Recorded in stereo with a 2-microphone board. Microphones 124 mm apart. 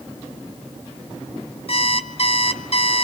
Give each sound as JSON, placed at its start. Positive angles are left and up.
{"t": 1.7, "sound": "an alarm clock", "side_deg": 50, "distance_m": 1.9}